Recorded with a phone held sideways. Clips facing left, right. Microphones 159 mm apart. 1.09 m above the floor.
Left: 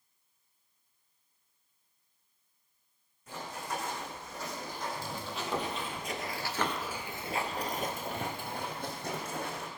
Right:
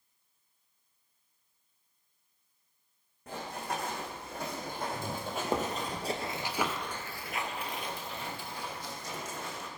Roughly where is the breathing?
No breathing in this recording.